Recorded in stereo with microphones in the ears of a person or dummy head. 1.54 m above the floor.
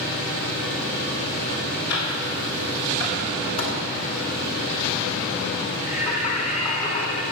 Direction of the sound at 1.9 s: 80° left.